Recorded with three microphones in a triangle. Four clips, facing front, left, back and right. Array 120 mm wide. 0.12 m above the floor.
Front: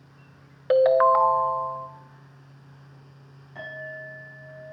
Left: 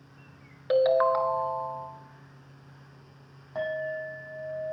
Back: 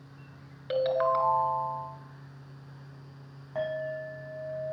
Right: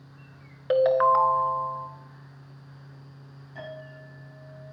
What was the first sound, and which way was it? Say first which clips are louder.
A ringtone: right 2 dB, front 9 dB; 15° right.